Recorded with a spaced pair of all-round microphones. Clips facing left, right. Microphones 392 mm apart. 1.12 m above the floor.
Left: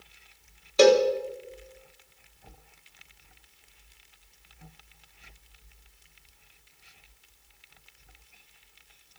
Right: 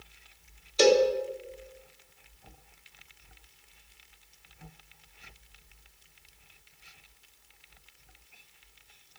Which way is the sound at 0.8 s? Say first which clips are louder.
Left 3 dB; 65° left (ahead or behind).